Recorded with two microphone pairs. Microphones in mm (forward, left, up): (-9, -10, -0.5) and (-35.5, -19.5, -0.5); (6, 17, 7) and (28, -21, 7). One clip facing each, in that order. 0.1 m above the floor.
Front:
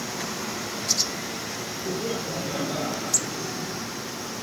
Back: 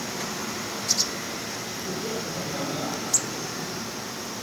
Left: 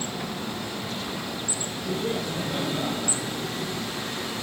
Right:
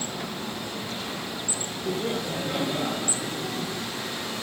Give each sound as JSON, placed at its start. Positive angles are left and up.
{"t": 1.9, "sound": "laughter", "azimuth_deg": -20, "distance_m": 3.5}